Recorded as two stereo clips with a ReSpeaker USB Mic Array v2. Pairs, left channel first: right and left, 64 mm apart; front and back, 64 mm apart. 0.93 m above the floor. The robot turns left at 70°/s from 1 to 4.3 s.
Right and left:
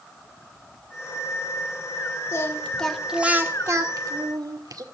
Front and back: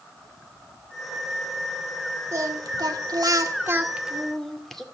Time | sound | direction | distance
2.3 | singing | 135° right | 2.0 m